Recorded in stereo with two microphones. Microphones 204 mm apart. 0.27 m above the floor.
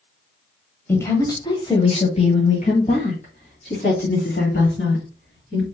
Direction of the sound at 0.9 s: 10° left (ahead or behind).